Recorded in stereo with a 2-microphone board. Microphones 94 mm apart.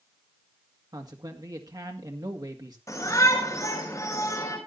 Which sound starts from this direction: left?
A shout, at 2.9 s.